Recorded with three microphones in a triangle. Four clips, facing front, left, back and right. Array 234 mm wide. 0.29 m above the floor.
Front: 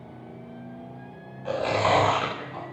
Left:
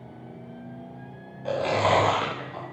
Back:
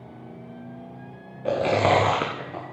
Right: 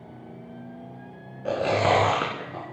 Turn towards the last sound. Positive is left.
turn(degrees=-160)